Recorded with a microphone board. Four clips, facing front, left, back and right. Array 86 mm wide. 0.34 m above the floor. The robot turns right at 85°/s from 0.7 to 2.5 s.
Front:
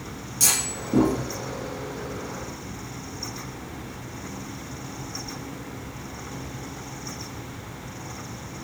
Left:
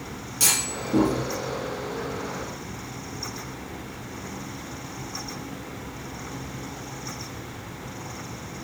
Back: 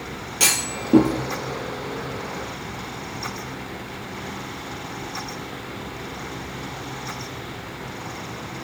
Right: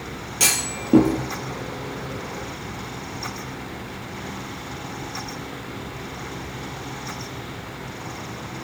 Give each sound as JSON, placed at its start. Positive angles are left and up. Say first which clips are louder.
{"t": 0.4, "sound": "a clunk", "louder": "right 2 dB, back 4 dB", "azimuth_deg": -145, "distance_m": 4.5}